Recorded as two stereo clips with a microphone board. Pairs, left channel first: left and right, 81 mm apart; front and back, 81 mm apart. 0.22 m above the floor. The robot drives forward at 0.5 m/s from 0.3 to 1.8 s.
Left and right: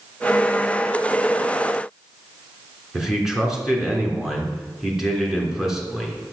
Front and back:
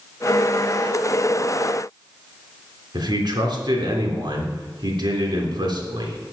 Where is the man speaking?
175° right, 3.5 m.